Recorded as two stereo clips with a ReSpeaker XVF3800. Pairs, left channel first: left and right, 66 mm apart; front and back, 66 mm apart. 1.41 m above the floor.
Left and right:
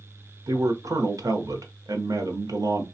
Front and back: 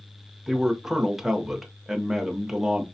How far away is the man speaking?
About 0.8 m.